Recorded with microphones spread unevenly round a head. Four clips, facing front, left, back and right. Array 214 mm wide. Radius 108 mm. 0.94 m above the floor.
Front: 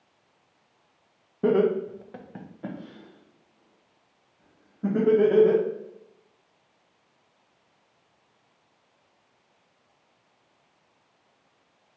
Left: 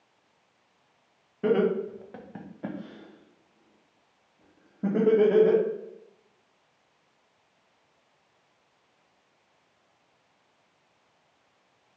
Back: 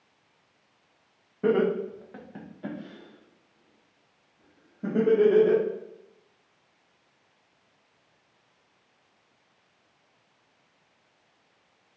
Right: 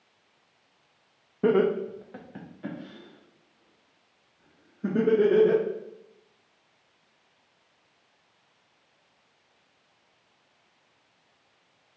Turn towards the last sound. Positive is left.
turn(degrees=100)